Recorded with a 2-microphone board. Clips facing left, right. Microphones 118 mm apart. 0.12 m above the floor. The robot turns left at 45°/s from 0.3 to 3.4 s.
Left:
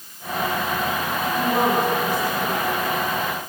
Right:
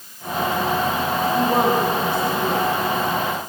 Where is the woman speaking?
25° right (ahead or behind), 8 m; by 2.7 s 80° right, 8 m.